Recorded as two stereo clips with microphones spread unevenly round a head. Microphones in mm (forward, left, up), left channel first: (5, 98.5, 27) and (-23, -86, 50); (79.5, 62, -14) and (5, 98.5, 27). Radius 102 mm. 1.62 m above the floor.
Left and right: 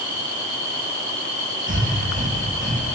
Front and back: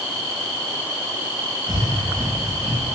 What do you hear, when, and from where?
1.7 s breathing: 145° right, 2.5 m